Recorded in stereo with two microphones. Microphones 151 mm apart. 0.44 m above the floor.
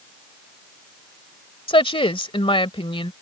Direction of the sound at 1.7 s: 35° left (ahead or behind).